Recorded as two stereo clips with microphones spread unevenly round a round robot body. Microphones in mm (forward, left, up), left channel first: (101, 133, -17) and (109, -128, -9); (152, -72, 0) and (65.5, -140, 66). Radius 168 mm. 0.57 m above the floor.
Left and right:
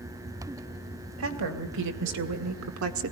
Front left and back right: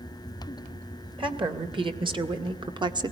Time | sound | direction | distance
1.2 | a woman speaking | 90° right | 3 m